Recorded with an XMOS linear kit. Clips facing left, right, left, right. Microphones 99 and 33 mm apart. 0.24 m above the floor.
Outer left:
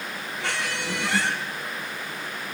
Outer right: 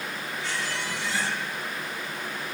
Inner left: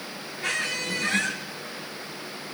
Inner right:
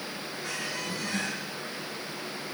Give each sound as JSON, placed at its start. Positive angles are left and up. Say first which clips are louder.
{"t": 0.4, "sound": "a squeak", "louder": "outer left 3 dB, inner left 8 dB", "side_deg": 70, "distance_m": 2.5}